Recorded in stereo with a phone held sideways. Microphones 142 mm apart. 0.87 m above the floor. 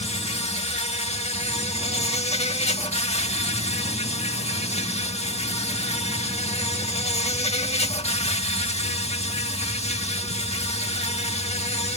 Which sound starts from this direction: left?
An insect, at 0.0 s.